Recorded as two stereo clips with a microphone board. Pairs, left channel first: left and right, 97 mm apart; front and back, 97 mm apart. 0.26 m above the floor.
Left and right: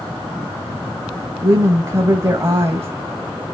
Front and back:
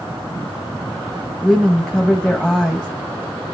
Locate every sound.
1.4 s a woman speaking: 75° right, 1.5 m